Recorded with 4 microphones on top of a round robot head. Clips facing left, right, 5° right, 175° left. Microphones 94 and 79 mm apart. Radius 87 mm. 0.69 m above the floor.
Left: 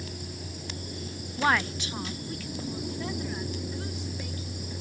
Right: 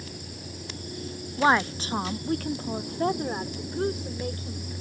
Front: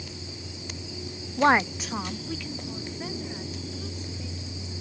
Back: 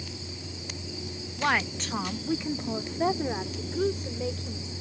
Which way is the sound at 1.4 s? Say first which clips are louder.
Right 4 dB, front 6 dB; 25° right.